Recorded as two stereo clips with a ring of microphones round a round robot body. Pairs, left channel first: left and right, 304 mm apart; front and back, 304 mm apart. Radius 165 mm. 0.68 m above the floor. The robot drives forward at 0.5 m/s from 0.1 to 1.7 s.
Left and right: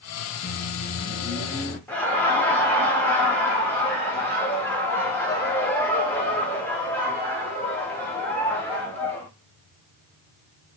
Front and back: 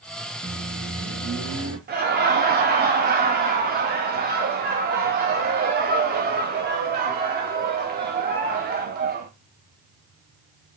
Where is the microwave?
115° left, 0.8 m; by 1.8 s 150° left, 1.2 m.